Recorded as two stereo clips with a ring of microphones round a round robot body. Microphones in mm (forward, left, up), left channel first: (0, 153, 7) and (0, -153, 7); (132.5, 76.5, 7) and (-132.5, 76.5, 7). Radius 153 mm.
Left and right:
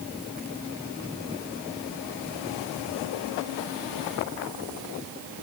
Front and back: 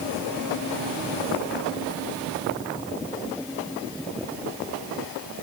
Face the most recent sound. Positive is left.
No sound to turn to.